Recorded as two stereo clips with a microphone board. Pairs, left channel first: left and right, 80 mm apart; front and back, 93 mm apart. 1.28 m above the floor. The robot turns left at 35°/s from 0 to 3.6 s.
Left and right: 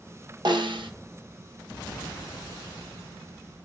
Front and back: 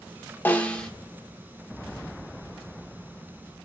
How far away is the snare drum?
About 0.8 m.